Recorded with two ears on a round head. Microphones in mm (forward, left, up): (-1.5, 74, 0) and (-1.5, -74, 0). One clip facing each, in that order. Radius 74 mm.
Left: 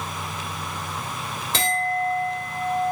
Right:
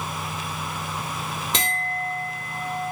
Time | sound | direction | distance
1.5 | a clink | 15° right (ahead or behind) | 1.0 m